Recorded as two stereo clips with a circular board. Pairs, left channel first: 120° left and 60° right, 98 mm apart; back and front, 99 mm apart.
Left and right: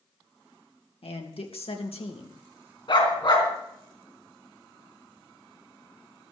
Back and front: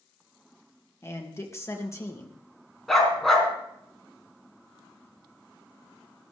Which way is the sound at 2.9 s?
90° left.